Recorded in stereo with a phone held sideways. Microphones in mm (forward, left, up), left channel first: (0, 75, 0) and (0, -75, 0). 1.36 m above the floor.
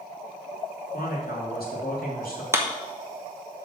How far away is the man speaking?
About 3 m.